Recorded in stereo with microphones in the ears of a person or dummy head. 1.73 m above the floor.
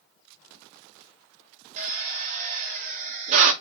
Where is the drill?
40° right (ahead or behind), 1.1 m.